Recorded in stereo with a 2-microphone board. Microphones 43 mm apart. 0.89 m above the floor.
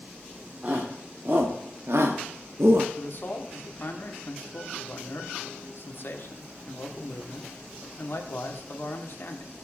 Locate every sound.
0.6 s a shout: 40° right (ahead or behind), 1.9 m; by 2.9 s 65° right (ahead or behind), 1.2 m
3.0 s a man speaking: 55° left (ahead or behind), 2 m